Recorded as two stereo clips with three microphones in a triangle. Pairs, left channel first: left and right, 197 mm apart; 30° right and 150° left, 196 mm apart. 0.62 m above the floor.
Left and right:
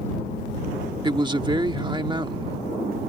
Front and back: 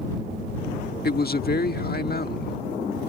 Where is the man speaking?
30° right.